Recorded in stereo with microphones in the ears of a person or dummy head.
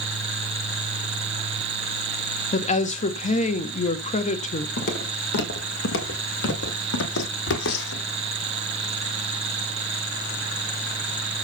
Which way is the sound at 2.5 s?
40° left (ahead or behind).